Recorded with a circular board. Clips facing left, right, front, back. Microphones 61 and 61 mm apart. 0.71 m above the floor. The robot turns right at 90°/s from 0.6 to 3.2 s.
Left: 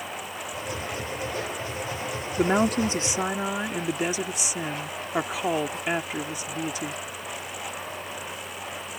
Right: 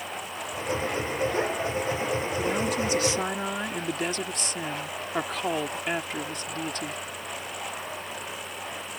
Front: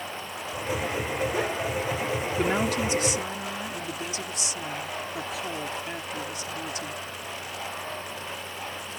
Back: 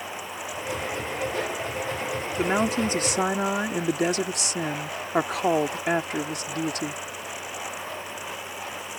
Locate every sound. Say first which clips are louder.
2.4 s a woman speaking: left 9 dB, back 3 dB; 95° left; by 7.0 s 170° left